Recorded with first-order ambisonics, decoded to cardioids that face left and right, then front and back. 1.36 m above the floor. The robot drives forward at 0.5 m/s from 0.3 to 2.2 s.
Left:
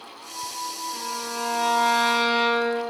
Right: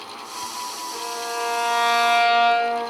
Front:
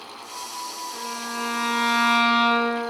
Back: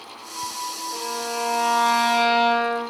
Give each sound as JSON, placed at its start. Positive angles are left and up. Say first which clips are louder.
{"t": 0.9, "sound": "a violin", "louder": "right 2 dB, back 4 dB", "azimuth_deg": -155, "distance_m": 1.7}